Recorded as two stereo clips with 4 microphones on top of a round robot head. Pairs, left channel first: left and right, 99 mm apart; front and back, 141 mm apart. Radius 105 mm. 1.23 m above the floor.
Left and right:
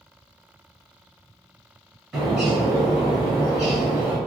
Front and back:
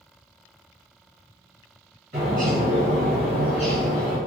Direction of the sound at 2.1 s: 175° right.